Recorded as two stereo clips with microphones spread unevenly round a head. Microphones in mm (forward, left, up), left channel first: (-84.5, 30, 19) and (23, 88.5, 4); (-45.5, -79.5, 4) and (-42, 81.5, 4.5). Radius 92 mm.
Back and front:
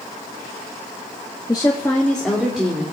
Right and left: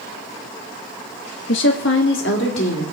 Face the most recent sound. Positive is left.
turn(degrees=-55)